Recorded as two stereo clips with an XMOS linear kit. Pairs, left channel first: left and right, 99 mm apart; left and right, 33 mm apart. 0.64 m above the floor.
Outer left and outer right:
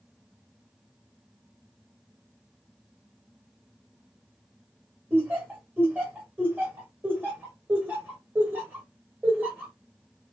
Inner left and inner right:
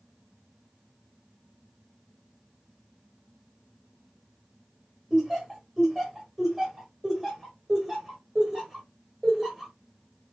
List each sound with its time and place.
5.1 s laughter: 20° right (ahead or behind), 1.7 m